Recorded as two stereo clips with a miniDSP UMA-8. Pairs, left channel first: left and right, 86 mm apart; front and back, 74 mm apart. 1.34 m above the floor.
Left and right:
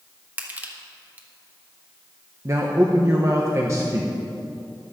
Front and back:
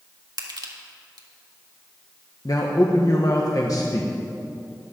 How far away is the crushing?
About 1.6 m.